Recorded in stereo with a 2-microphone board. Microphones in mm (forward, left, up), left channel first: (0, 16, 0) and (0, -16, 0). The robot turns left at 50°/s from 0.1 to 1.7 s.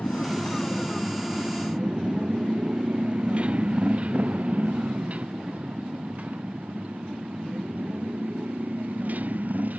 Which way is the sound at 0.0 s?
65° left (ahead or behind).